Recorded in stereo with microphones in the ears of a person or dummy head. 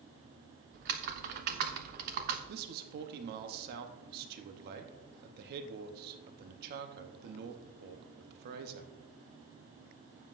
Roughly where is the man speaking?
Right.